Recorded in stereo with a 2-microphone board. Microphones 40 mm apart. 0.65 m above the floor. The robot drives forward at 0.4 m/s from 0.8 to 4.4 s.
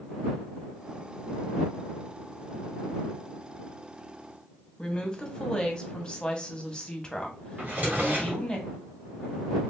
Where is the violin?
No violin in this recording.